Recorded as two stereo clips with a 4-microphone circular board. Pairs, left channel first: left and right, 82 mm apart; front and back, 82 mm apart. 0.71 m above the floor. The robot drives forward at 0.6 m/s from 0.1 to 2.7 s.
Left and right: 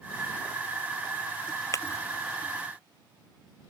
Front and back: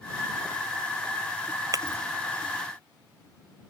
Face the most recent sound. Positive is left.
turn(degrees=140)